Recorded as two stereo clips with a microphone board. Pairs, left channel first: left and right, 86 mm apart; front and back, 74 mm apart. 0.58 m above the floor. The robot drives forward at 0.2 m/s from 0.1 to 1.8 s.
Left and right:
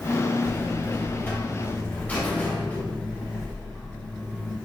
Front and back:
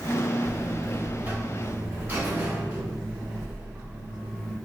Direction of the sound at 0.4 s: 120° left.